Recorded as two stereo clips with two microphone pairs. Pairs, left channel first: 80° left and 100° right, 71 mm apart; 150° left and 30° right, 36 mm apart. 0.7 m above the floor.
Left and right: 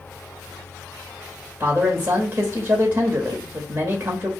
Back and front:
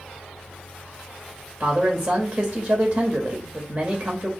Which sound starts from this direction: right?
A man speaking, at 1.6 s.